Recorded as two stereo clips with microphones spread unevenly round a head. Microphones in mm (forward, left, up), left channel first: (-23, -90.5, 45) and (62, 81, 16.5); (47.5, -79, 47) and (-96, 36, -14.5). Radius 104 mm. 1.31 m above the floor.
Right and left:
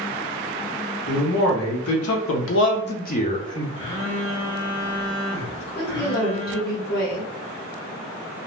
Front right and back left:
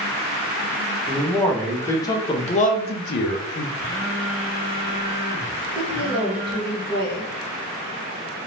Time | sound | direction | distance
1.1 | a man speaking | 130° right | 1.2 m
3.8 | a phone buzzing | 75° right | 1.1 m
5.6 | a woman speaking | 160° right | 1.1 m